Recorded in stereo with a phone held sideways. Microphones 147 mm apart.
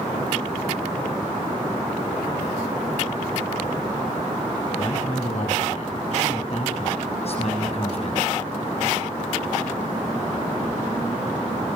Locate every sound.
4.8 s a man speaking: 50° left (ahead or behind), 8 m; by 8.4 s 45° left (ahead or behind), 6.5 m